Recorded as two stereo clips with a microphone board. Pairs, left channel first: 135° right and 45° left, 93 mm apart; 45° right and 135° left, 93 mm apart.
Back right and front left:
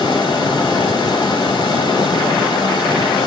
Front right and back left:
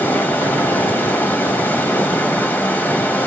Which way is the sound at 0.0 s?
115° right.